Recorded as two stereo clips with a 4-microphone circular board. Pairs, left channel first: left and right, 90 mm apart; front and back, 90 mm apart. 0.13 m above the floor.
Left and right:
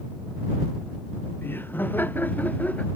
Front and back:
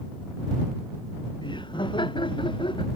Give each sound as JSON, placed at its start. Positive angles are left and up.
{"t": 1.4, "sound": "laughter", "azimuth_deg": 25}